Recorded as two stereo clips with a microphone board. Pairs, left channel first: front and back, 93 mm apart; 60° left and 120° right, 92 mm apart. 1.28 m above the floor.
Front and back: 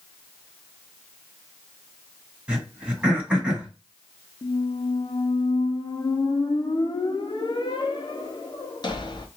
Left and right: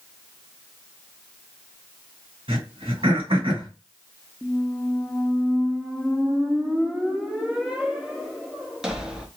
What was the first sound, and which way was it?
Throat clearing, 105° right.